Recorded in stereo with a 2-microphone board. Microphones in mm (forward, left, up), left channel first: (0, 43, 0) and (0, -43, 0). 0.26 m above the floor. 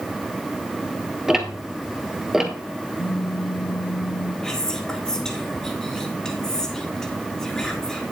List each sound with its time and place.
1.3 s ticking: 5° right (ahead or behind), 1.4 m
3.0 s a phone buzzing: 65° left (ahead or behind), 6.5 m
4.4 s whispering: 5° left (ahead or behind), 3.5 m